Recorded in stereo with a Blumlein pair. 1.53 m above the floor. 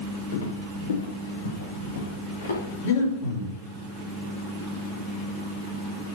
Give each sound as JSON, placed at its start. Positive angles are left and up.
{"t": 0.3, "sound": "footsteps", "azimuth_deg": 60, "distance_m": 6.5}
{"t": 2.8, "sound": "breathing", "azimuth_deg": 50, "distance_m": 6.5}